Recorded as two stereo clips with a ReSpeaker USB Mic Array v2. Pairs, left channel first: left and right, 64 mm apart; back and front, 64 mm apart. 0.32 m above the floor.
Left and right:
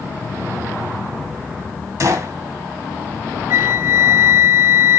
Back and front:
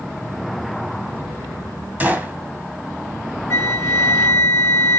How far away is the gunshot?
About 1.6 m.